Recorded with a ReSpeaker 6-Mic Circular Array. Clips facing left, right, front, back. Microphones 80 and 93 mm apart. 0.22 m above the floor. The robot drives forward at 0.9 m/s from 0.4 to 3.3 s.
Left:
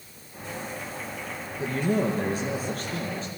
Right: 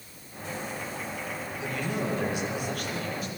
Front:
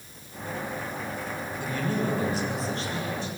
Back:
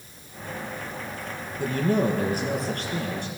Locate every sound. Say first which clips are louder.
1.6 s a man speaking: left 7 dB, back 6 dB; 140° left, 3.5 m; by 3.3 s 150° left, 5 m